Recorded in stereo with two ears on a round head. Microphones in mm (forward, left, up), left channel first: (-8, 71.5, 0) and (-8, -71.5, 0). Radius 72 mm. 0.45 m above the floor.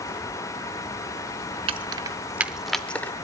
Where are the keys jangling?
35° right (ahead or behind), 0.8 m; by 3.1 s 15° left (ahead or behind), 1.0 m.